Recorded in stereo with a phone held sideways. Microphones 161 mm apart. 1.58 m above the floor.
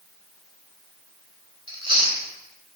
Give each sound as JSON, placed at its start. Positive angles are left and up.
{"t": 1.7, "sound": "chewing", "side_deg": -30, "distance_m": 3.0}